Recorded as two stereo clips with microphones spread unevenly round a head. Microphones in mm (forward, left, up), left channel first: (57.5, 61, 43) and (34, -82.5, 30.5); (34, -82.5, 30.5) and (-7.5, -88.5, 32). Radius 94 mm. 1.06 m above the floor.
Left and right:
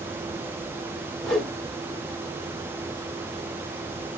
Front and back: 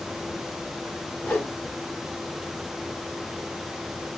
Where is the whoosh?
5° left, 0.9 m.